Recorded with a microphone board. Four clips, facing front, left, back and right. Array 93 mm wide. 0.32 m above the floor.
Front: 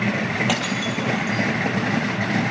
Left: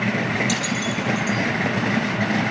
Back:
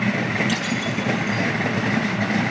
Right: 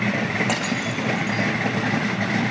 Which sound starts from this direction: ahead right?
Breaking glass, at 0.5 s.